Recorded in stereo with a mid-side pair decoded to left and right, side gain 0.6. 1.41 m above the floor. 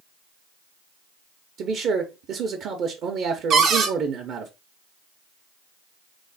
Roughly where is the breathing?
I don't hear breathing.